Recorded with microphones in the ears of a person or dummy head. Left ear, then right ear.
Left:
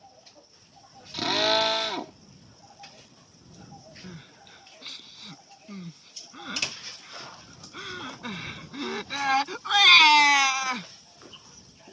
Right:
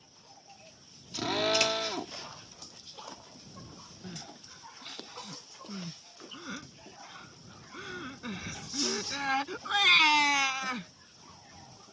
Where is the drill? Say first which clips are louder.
Left 4 dB; 25° left (ahead or behind).